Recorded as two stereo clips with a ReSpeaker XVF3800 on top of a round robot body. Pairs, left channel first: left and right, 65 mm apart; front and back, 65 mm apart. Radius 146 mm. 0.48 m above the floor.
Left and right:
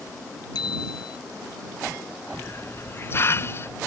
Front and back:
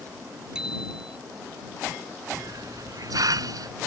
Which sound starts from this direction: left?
A bicycle bell, at 0.6 s.